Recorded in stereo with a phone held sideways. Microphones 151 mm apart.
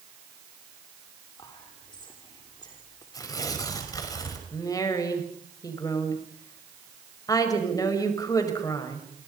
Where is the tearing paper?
25° left (ahead or behind), 5 m.